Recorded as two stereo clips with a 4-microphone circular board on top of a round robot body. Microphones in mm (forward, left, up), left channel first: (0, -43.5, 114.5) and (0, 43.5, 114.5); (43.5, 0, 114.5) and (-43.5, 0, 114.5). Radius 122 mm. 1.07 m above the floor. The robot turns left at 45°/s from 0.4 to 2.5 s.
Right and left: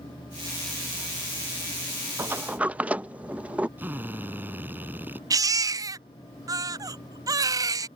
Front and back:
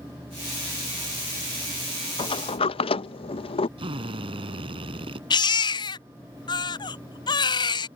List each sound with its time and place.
2.2 s a sliding door: 30° left; by 3.7 s 15° left
3.8 s a drill: 160° left
5.3 s a baby crying: 40° left